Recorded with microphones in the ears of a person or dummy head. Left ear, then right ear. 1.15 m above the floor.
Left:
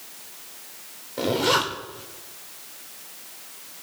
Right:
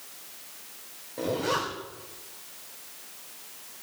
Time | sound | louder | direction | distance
1.2 | a zipper | left 6 dB | 30° left (ahead or behind) | 1.8 m